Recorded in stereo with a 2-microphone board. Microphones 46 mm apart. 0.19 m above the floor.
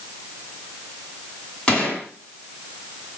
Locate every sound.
1.7 s a gunshot: 20° left (ahead or behind), 2 m